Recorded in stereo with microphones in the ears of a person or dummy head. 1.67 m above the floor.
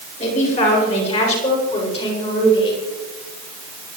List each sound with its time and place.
0.2 s a man speaking: 40° left (ahead or behind), 8 m; by 2.8 s 30° left (ahead or behind), 7 m